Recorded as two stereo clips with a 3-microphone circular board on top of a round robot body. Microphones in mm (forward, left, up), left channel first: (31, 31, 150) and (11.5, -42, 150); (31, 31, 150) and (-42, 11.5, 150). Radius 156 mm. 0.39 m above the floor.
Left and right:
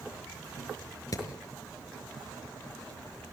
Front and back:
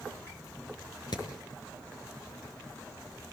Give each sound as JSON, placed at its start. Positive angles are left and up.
{"t": 1.1, "sound": "hammering", "azimuth_deg": 35, "distance_m": 5.0}